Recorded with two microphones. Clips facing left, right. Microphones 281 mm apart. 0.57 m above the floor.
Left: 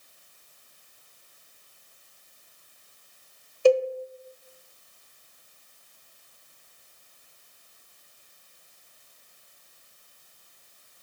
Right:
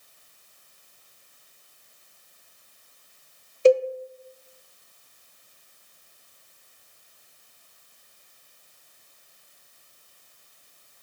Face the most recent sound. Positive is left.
turn(degrees=-20)  # may be behind; listen again after turning